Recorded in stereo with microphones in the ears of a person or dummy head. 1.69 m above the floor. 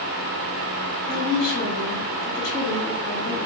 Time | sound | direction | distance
1.1 | a woman speaking | 65° left (ahead or behind) | 2.0 m